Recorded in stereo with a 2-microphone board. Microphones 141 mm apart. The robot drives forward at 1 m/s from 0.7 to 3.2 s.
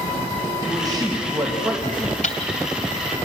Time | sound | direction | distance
0.7 | a man speaking | 25° right (ahead or behind) | 3.5 m
2.2 | ticking | 55° left (ahead or behind) | 2 m